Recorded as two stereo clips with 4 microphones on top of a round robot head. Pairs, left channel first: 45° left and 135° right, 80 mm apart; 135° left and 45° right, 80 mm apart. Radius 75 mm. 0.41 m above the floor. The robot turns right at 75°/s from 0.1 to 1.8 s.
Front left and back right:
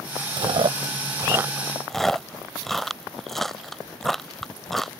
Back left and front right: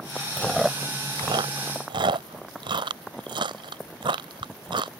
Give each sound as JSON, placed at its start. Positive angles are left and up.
{"t": 0.4, "sound": "chewing", "azimuth_deg": -150}